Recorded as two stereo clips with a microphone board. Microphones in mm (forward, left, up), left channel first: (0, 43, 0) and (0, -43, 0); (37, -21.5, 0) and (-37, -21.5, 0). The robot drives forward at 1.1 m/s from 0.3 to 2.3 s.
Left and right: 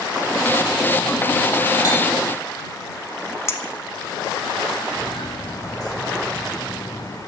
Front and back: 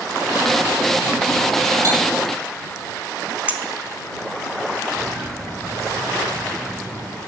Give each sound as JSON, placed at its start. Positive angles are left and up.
{"t": 1.8, "sound": "cutlery clinking", "azimuth_deg": 140, "distance_m": 3.5}
{"t": 3.5, "sound": "a clink", "azimuth_deg": 125, "distance_m": 0.7}
{"t": 4.9, "sound": "footsteps", "azimuth_deg": 115, "distance_m": 2.0}